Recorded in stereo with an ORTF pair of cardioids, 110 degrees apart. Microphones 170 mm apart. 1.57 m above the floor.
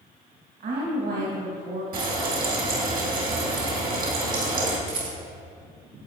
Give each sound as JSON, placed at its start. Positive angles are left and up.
{"t": 0.6, "sound": "a woman speaking", "azimuth_deg": -55, "distance_m": 2.5}
{"t": 1.9, "sound": "frying", "azimuth_deg": -60, "distance_m": 2.5}
{"t": 4.9, "sound": "a rattle", "azimuth_deg": -55, "distance_m": 2.5}